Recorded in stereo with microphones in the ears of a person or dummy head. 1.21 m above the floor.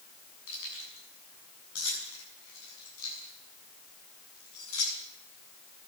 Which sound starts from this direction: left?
Keys jangling, at 0.5 s.